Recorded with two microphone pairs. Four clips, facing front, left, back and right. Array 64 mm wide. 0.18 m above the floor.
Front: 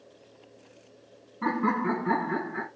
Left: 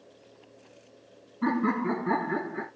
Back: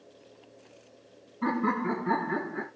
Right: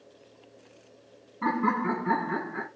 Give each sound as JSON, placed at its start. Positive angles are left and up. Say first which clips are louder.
{"t": 1.4, "sound": "laughter", "louder": "even, front 1 dB", "azimuth_deg": -75, "distance_m": 1.4}